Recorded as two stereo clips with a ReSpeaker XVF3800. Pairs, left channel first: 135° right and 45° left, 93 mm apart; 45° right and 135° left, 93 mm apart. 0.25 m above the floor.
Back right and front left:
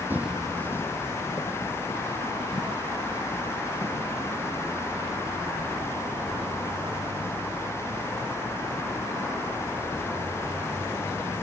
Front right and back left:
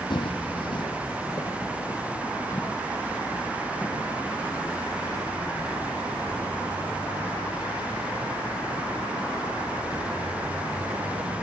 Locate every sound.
0.1 s footsteps: 20° right, 0.6 m; by 11.4 s 120° right, 8.5 m